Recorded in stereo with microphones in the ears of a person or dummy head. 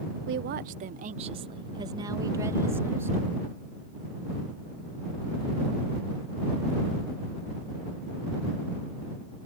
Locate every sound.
0.3 s a woman speaking: 45° right (ahead or behind); by 3.5 s 15° right (ahead or behind)